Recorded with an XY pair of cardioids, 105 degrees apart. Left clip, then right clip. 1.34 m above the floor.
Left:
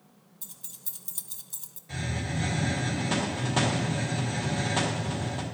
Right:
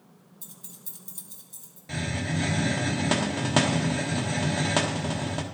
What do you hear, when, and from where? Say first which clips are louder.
0.4 s keys jangling: left 3 dB; 10° left, 1.0 m; by 1.8 s 65° left, 0.8 m
1.9 s a hiss: right 3 dB; 60° right, 1.3 m